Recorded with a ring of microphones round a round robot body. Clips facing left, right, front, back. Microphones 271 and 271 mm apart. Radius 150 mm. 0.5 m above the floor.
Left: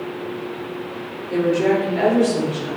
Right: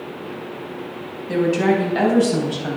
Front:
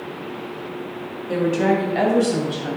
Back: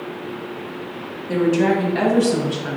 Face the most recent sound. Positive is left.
turn(degrees=-100)